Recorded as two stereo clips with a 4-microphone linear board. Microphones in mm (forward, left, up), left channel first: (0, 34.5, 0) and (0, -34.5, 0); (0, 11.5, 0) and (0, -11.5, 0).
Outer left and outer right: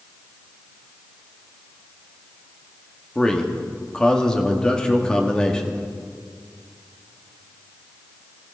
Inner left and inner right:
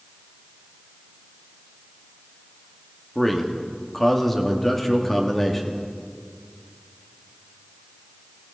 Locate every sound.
3.1 s a man speaking: 10° left (ahead or behind), 1.7 m